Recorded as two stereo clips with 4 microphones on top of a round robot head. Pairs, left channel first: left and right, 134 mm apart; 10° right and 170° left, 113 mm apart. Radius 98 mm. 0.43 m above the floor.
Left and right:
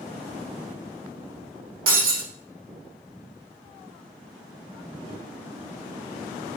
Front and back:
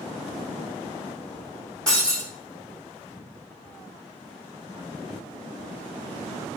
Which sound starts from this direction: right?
Breaking glass, at 1.9 s.